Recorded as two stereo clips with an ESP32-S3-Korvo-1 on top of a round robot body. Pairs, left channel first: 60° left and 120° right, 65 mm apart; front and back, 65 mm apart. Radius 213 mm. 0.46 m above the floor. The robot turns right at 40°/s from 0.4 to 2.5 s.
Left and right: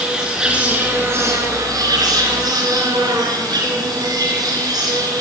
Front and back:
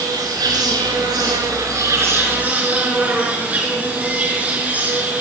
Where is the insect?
165° left, 4 m; by 5.2 s 115° right, 4 m.